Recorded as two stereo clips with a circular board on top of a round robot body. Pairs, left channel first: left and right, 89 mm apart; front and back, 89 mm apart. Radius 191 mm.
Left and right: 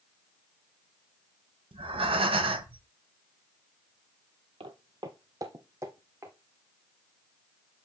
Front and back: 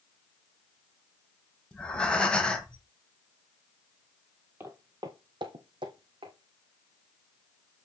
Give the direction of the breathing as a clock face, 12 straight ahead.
3 o'clock.